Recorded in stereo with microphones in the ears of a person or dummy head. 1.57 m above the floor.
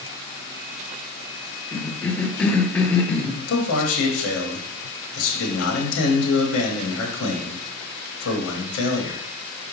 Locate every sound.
1.7 s a cough: 15° left (ahead or behind), 0.6 m
3.5 s a man speaking: 75° left (ahead or behind), 1.0 m